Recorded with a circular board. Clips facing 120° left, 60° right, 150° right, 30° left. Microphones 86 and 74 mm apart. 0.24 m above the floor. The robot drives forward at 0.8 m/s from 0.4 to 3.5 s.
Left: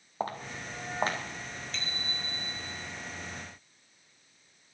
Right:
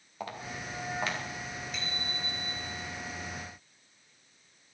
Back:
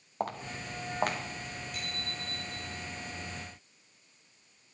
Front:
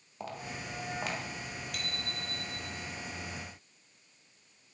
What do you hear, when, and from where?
0.2 s footsteps: 175° left, 3 m
1.7 s a bicycle bell: 20° left, 4 m; by 2.8 s 25° left, 3.5 m